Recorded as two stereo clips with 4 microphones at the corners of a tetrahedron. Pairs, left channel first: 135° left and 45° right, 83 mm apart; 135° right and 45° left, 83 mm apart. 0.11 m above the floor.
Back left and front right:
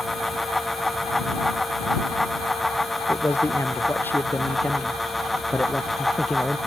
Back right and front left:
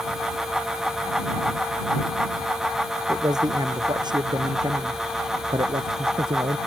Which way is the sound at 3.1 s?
80° left.